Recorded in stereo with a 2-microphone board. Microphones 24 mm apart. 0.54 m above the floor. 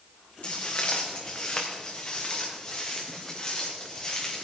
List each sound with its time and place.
0.4 s footsteps: 55° left (ahead or behind), 2 m; by 4.5 s 25° left (ahead or behind), 4.5 m